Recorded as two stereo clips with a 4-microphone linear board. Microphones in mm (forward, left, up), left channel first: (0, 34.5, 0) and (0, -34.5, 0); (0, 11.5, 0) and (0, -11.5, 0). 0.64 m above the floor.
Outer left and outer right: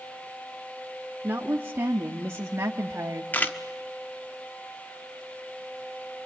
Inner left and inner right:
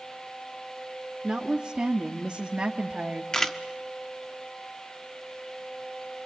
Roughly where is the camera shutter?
Left.